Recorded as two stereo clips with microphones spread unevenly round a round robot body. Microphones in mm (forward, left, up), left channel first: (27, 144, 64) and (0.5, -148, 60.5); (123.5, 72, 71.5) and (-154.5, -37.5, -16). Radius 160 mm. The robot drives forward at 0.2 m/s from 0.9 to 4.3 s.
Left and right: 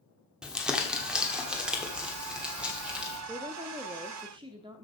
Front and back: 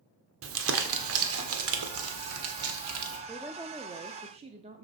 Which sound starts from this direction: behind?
Crumpling, at 0.4 s.